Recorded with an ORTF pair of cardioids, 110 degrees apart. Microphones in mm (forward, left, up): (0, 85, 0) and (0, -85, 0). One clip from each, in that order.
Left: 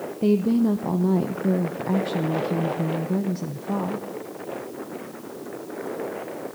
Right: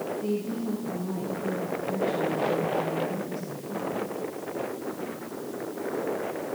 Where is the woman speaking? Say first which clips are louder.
Left 8 dB; 65° left, 0.7 m.